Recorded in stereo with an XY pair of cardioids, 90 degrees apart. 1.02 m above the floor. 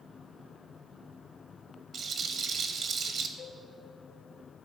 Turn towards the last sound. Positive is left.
turn(degrees=55)